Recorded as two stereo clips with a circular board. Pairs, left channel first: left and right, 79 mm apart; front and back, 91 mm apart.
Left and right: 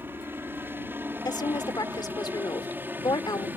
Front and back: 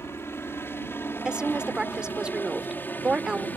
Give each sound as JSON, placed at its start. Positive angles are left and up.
{"t": 0.0, "sound": "a helicopter", "azimuth_deg": -45}
{"t": 1.2, "sound": "a woman speaking", "azimuth_deg": 100}